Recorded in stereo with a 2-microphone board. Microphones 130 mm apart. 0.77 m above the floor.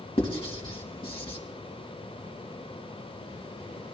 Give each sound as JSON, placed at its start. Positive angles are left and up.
{"t": 0.2, "sound": "writing", "side_deg": 40, "distance_m": 1.8}